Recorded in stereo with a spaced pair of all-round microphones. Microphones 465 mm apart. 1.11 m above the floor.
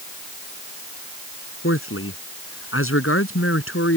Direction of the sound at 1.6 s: 25° left (ahead or behind).